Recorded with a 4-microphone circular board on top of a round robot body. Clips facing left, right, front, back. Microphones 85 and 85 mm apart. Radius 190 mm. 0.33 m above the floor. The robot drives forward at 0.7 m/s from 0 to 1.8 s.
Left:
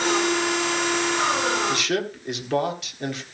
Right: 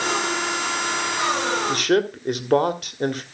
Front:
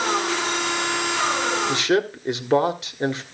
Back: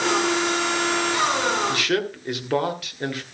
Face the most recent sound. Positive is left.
turn(degrees=-60)